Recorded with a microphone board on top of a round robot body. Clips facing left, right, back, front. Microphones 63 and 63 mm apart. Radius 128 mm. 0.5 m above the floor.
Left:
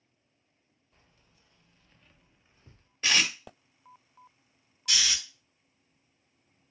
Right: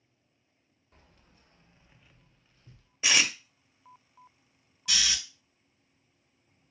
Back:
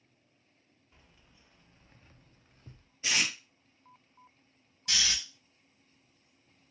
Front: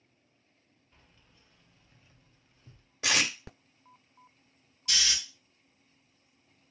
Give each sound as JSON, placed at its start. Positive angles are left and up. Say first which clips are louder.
{"t": 0.9, "sound": "keys jangling", "louder": "right 5 dB, back 1 dB", "azimuth_deg": -95, "distance_m": 1.0}
{"t": 3.0, "sound": "tape being pulled", "louder": "even, front 3 dB", "azimuth_deg": -10, "distance_m": 0.8}
{"t": 4.9, "sound": "snoring", "louder": "even, front 1 dB", "azimuth_deg": 180, "distance_m": 2.5}